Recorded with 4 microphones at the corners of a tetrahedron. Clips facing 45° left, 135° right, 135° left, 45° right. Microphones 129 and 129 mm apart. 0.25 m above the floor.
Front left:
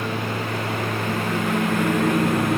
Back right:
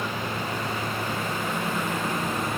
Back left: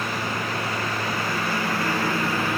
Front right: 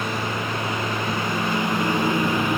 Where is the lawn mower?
25° left.